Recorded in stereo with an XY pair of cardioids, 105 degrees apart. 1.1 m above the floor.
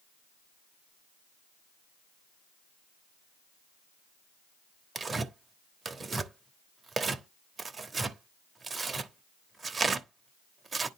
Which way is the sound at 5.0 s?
35° right.